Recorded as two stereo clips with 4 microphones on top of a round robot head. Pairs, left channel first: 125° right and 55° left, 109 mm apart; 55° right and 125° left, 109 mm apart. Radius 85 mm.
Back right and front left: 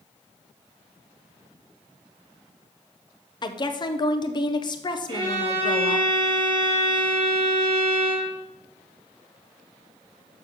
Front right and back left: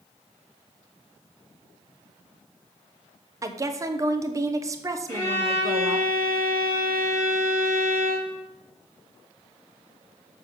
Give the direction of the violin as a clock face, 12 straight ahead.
12 o'clock.